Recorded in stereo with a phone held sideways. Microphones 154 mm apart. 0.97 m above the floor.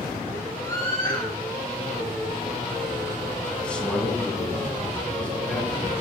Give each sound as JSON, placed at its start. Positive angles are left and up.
{"t": 0.6, "sound": "a scream", "side_deg": 25, "distance_m": 8.5}
{"t": 3.6, "sound": "a man speaking", "side_deg": 5, "distance_m": 8.0}